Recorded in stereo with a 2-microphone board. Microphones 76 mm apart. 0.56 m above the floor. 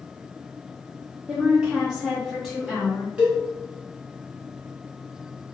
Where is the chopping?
No chopping in this recording.